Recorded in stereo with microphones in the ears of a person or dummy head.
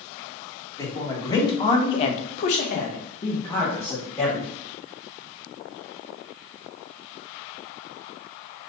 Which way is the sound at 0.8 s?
15° left (ahead or behind).